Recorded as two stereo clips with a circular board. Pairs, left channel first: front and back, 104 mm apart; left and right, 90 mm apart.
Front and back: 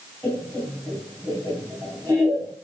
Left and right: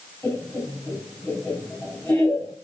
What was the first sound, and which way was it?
Laughter, 150° left.